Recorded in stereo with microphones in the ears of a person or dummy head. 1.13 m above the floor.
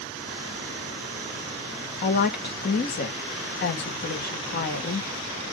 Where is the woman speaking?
45° left (ahead or behind), 1.1 m.